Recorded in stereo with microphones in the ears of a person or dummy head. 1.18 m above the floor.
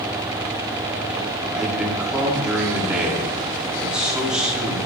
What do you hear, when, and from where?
1.5 s a man speaking: 5° right (ahead or behind), 3 m